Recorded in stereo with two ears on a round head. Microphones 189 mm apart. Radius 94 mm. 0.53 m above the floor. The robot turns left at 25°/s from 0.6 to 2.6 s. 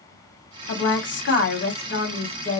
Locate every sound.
0.7 s a woman speaking: 95° left, 1.3 m; by 2.6 s 50° left, 1.3 m